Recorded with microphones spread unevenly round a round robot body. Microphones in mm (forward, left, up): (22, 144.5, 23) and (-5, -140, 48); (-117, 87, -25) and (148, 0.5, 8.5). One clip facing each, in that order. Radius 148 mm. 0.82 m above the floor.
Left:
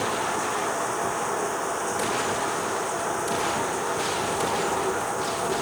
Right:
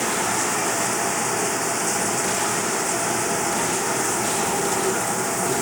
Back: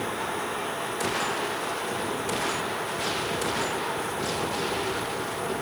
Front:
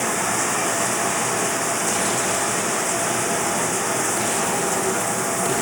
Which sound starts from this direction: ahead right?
Running water, at 0.0 s.